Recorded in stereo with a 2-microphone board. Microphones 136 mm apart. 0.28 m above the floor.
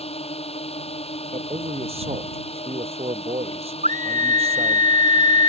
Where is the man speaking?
50° right (ahead or behind).